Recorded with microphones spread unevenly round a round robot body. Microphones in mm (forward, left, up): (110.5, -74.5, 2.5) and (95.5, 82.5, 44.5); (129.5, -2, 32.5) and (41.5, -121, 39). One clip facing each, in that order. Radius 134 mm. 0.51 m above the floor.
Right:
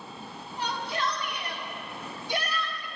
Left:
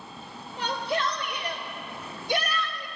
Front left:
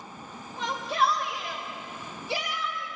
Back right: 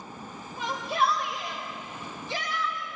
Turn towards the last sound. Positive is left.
turn(degrees=120)